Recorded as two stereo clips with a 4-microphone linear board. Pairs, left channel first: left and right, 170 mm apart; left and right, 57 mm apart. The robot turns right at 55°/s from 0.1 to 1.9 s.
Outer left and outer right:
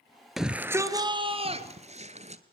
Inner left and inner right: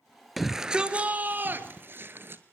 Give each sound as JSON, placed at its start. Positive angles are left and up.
{"t": 0.4, "sound": "a shout", "azimuth_deg": 180, "distance_m": 1.6}